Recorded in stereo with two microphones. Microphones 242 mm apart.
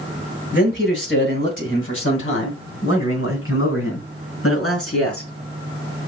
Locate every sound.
0.5 s a man speaking: 50° left (ahead or behind), 2.5 m; by 5.3 s 70° left (ahead or behind), 5 m